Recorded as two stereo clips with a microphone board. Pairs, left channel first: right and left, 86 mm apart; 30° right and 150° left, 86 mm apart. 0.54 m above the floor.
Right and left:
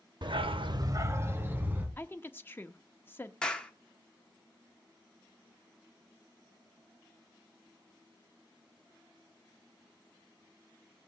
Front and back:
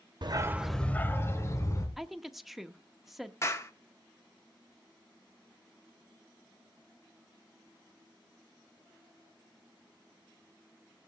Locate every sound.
0.2 s a dog barking: 120° left, 0.7 m; by 1.9 s 20° left, 2.5 m
2.0 s a woman speaking: 125° right, 0.7 m
3.4 s a clap: 15° right, 1.2 m